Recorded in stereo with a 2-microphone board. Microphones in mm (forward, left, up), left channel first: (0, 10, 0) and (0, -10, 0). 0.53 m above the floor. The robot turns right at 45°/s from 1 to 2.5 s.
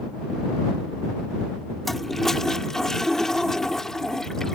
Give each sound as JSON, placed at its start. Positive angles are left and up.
{"t": 1.9, "sound": "a toilet flushing", "side_deg": 10}